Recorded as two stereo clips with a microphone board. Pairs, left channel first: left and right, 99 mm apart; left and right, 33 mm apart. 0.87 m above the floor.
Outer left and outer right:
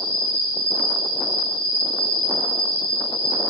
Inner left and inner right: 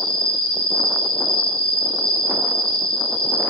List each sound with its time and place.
0.0 s an insect: 45° left (ahead or behind), 1.1 m